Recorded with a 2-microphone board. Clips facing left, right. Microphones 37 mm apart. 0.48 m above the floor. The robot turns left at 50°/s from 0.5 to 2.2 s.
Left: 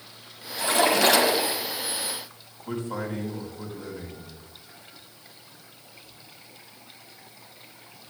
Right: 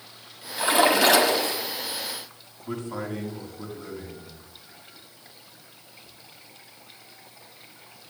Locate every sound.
0.6 s a splash: 150° right, 1.2 m; by 1.6 s 160° left, 1.2 m
2.6 s a man speaking: 70° left (ahead or behind), 3.5 m